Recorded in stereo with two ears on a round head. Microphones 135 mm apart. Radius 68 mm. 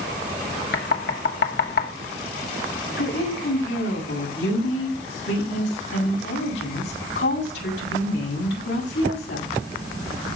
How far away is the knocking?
About 1.9 m.